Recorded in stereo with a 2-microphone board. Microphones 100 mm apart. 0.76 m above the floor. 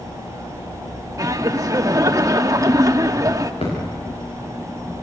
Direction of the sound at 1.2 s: 35° right (ahead or behind).